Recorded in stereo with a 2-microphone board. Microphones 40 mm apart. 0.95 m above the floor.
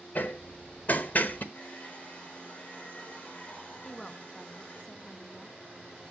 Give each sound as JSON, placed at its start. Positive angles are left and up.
{"t": 0.1, "sound": "hammering", "side_deg": 45, "distance_m": 0.9}
{"t": 1.5, "sound": "a hair dryer", "side_deg": 45, "distance_m": 3.0}
{"t": 3.8, "sound": "a woman speaking", "side_deg": 15, "distance_m": 0.8}